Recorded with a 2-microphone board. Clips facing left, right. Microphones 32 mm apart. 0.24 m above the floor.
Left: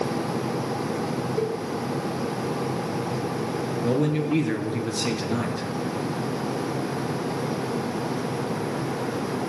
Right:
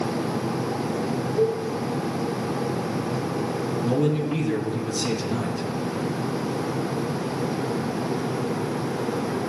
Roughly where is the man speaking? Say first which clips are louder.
Even; left.